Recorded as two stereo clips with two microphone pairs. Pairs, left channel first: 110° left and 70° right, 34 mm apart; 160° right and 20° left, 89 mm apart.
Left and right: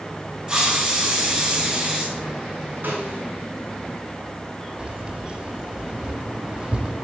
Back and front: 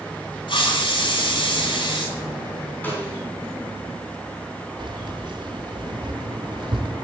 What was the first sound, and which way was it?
A hiss, 135° right.